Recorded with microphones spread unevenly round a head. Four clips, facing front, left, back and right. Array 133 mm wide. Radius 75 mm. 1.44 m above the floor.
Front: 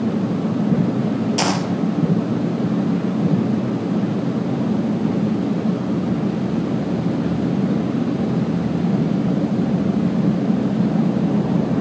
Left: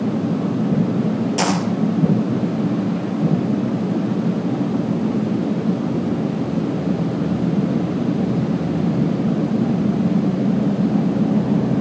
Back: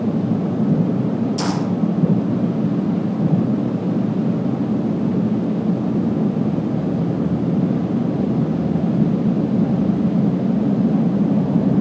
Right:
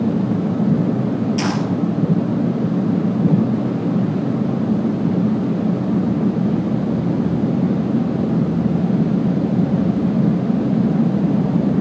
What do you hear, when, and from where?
1.4 s a dropped coin: 45° left, 3 m